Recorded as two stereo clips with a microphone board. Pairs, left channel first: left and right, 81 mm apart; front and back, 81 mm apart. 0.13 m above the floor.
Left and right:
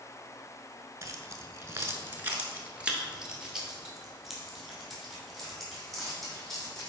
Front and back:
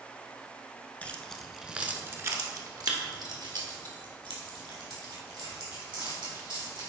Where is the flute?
I don't hear a flute.